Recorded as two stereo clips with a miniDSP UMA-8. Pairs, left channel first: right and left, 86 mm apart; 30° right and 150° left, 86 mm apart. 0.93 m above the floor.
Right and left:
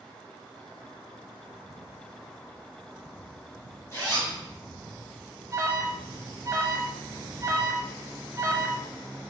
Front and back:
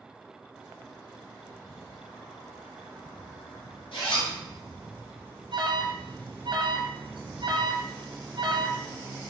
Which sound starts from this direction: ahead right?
A zipper, at 3.9 s.